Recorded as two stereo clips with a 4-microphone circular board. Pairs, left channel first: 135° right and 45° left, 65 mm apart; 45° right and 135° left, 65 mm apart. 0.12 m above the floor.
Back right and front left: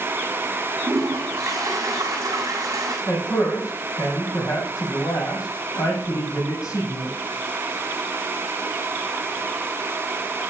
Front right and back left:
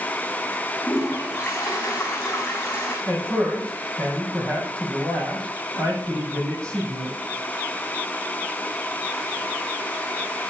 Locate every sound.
0.9 s a toilet flushing: 5° left, 6.5 m
3.1 s a man speaking: 120° right, 5.5 m